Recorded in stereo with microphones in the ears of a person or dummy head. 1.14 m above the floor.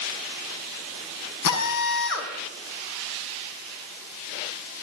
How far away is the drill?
About 5 m.